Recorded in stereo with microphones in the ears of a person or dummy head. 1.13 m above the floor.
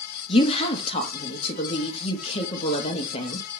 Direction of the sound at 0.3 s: 30° left (ahead or behind).